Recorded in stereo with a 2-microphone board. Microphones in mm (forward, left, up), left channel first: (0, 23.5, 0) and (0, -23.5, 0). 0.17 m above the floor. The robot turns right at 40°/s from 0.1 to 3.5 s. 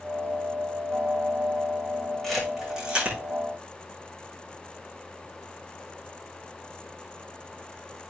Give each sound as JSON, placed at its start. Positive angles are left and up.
{"t": 2.2, "sound": "a camera shutter", "side_deg": 10, "distance_m": 9.0}